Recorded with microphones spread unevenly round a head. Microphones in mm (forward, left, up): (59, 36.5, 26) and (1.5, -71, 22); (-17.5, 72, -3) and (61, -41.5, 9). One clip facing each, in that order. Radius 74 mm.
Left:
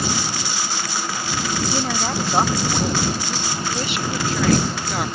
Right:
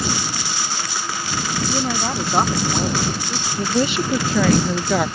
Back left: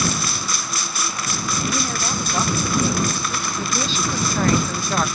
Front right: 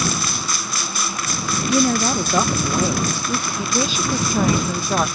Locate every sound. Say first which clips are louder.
1.7 s a woman speaking: right 1 dB, front right 7 dB; 30° right
3.6 s a woman speaking: right 10 dB, front right 1 dB; 130° right